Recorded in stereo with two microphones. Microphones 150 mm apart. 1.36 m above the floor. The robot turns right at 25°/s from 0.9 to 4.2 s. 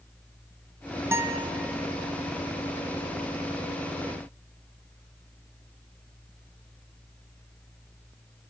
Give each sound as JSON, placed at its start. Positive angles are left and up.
{"t": 1.1, "sound": "a guitar", "side_deg": -15, "distance_m": 0.6}